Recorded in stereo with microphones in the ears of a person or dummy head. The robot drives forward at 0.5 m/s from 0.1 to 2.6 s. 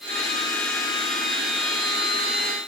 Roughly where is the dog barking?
I don't hear a dog barking.